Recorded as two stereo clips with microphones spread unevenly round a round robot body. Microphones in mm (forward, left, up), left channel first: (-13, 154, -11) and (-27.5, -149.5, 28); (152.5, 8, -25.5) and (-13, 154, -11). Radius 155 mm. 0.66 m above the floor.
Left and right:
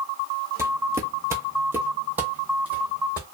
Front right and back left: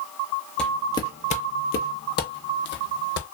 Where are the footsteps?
130° right, 0.6 m; by 3.2 s 10° right, 1.4 m.